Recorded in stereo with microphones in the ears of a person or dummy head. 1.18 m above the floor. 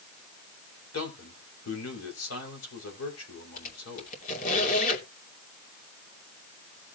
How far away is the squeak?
About 2.5 m.